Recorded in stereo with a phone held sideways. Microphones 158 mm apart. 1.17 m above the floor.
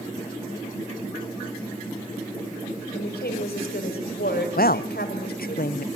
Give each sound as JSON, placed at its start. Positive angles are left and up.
{"t": 2.9, "sound": "a woman speaking", "side_deg": 85, "distance_m": 5.0}
{"t": 4.6, "sound": "a woman speaking", "side_deg": 70, "distance_m": 0.8}